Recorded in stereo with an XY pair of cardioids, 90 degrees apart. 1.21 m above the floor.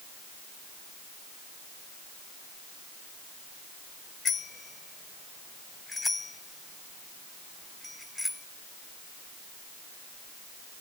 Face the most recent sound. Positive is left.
turn(degrees=10)